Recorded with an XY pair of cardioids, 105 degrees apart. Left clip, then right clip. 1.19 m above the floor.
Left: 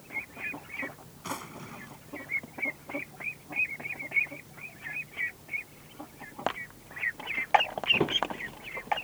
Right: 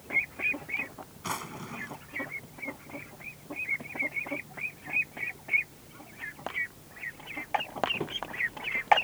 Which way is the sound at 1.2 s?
20° right.